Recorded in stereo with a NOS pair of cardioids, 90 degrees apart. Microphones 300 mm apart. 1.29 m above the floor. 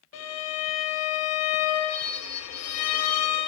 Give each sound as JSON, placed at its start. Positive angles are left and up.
{"t": 0.1, "sound": "a violin", "azimuth_deg": 60, "distance_m": 0.6}